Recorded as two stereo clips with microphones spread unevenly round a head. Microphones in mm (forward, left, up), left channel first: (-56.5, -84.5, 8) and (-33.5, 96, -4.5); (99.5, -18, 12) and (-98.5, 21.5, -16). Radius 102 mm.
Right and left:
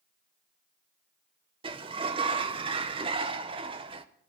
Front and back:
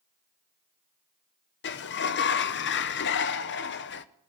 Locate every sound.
1.6 s a sliding door: 25° left, 1.0 m